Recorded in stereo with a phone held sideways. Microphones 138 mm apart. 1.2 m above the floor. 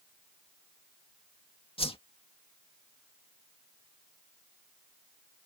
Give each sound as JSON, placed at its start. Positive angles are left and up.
{"t": 1.8, "sound": "a whoosh", "side_deg": 40}